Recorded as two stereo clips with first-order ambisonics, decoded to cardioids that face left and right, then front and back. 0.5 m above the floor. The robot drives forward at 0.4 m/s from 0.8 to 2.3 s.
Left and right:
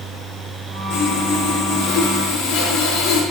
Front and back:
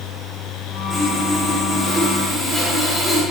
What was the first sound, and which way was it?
Sawing, 90° left.